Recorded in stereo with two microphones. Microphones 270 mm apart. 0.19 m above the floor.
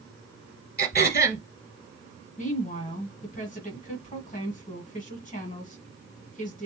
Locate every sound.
0.8 s throat clearing: 35° left (ahead or behind), 1.5 m
2.4 s a woman speaking: 30° left (ahead or behind), 1.5 m